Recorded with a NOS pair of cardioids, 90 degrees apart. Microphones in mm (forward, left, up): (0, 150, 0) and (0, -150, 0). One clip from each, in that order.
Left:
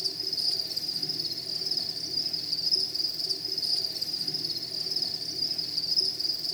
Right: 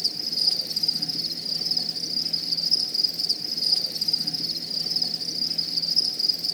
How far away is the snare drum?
I don't hear a snare drum.